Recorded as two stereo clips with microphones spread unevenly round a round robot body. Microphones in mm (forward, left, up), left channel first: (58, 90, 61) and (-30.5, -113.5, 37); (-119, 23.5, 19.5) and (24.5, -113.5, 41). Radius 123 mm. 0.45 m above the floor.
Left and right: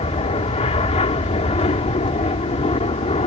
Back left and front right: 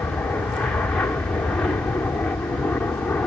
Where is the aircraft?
70° left.